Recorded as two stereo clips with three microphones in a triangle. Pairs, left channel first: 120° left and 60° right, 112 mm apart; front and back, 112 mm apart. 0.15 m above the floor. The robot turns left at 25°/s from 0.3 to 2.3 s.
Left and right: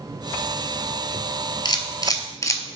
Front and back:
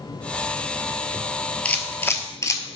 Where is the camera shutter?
75° left, 0.7 m; by 2.8 s 60° left, 0.7 m.